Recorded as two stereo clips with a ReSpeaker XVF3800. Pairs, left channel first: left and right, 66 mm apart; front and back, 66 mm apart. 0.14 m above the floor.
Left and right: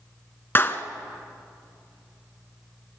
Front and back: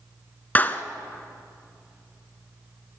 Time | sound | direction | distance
0.6 | a clap | 50° left | 1.2 m